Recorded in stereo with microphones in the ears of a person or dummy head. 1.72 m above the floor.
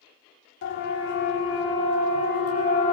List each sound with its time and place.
0.6 s a siren: 60° left (ahead or behind), 6 m; by 2.9 s 40° left (ahead or behind), 5 m